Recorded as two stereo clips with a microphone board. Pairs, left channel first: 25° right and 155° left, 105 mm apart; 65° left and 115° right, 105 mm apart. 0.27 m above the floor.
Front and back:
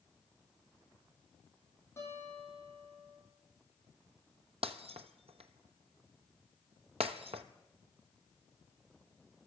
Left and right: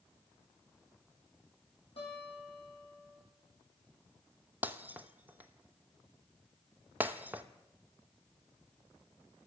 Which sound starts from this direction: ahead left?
A guitar, at 2.0 s.